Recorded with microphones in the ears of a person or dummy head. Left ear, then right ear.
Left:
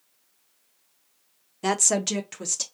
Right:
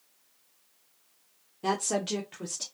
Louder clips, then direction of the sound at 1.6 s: Left 5 dB; 50° left (ahead or behind).